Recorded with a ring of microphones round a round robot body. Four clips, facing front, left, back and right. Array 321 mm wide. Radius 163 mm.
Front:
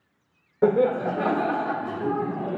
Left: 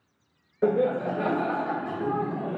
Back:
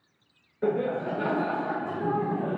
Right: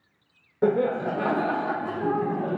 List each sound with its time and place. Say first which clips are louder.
0.6 s laughter: right 1 dB, front 6 dB; 25° right, 1.2 m; by 2.6 s 140° right, 0.9 m